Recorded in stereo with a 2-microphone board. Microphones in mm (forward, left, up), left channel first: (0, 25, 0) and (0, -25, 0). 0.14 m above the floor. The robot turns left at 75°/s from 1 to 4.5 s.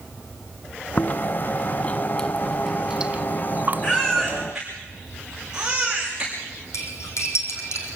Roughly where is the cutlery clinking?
Left.